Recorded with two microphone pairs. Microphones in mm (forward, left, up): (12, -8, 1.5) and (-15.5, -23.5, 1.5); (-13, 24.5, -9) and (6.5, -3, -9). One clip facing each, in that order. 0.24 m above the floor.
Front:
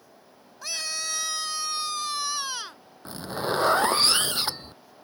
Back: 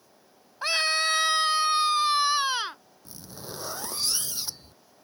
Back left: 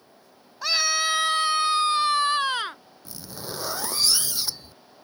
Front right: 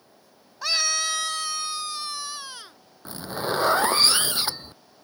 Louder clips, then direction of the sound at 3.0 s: Front 13 dB, front right 9 dB; 5° right.